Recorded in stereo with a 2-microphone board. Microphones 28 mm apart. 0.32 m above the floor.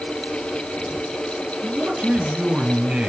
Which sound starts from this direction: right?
A man speaking, at 1.6 s.